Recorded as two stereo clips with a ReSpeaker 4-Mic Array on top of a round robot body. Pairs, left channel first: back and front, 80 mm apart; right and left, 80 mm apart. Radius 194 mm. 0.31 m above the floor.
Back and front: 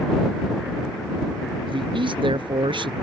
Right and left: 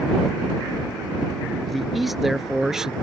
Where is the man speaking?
Straight ahead; by 2.9 s 10° left.